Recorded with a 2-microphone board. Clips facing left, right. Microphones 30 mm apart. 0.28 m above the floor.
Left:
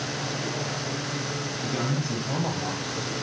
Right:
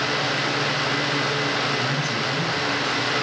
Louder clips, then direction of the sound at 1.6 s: Right 5 dB; 45° left (ahead or behind).